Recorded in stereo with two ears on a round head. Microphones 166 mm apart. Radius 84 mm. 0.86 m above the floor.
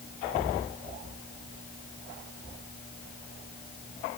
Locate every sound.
Only background noise.